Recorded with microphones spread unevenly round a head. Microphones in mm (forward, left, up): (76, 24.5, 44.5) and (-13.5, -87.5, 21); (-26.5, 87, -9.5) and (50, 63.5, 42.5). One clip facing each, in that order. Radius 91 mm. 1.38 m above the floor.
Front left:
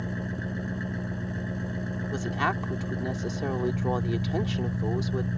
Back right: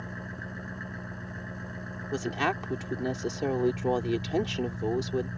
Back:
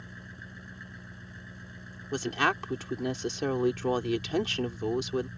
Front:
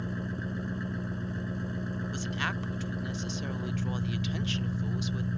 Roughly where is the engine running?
Ahead.